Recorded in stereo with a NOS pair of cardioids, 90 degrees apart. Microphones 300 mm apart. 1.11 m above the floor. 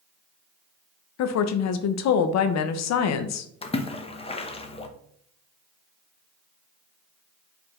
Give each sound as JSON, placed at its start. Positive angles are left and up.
{"t": 1.2, "sound": "a woman speaking", "azimuth_deg": 60, "distance_m": 0.6}
{"t": 3.6, "sound": "a splash", "azimuth_deg": 20, "distance_m": 0.7}